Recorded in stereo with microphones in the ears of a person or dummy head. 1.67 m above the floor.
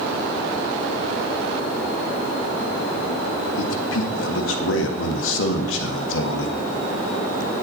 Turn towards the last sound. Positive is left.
turn(degrees=85)